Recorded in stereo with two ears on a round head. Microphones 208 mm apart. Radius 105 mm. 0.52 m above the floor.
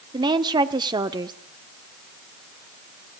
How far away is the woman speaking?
About 1.0 m.